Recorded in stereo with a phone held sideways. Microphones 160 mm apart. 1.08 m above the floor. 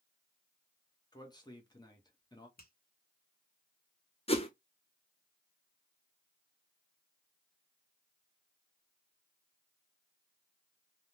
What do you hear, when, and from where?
1.1 s a man speaking: 25° left (ahead or behind), 1.1 m
2.6 s a finger snap: 70° left (ahead or behind), 1.1 m
4.3 s a whoosh: 40° left (ahead or behind), 0.7 m